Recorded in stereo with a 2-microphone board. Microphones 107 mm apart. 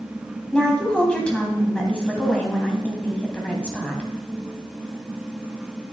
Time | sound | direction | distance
0.5 | a woman speaking | 10° left (ahead or behind) | 2.5 m